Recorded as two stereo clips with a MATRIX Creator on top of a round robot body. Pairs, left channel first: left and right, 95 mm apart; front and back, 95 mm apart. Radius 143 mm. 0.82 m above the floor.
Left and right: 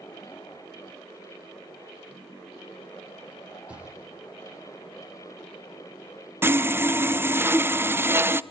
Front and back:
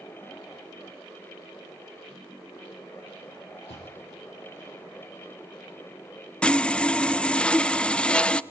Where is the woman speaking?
I don't hear a woman speaking.